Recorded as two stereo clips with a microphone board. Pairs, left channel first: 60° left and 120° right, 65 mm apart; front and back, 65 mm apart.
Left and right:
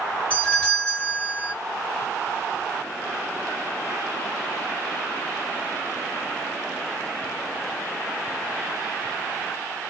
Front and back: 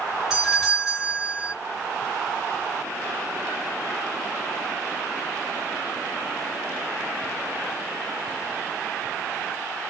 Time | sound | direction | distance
0.3 | a doorbell | 105° left | 1.9 m